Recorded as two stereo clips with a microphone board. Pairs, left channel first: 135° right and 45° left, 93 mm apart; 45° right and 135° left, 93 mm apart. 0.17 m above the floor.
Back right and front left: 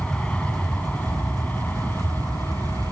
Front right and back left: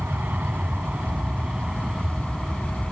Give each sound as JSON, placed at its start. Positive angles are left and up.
{"t": 0.0, "sound": "an aircraft", "azimuth_deg": 165}